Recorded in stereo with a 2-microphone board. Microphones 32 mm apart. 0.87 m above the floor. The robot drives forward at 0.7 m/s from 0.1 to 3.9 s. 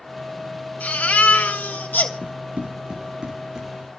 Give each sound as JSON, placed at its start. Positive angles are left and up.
{"t": 0.8, "sound": "a baby crying", "side_deg": 55, "distance_m": 3.0}
{"t": 2.2, "sound": "running footsteps", "side_deg": -45, "distance_m": 3.0}